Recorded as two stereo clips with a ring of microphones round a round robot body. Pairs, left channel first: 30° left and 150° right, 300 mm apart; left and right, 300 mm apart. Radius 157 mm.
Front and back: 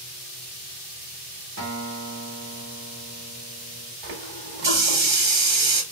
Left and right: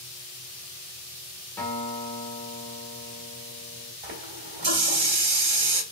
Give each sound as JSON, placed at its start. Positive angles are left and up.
{"t": 1.6, "sound": "a guitar", "azimuth_deg": 175, "distance_m": 1.3}
{"t": 4.0, "sound": "a running tap", "azimuth_deg": -145, "distance_m": 2.0}